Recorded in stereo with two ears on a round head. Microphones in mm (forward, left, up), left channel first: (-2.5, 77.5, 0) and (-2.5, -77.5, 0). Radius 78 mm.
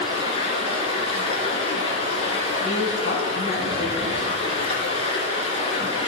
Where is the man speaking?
70° left (ahead or behind), 4 m.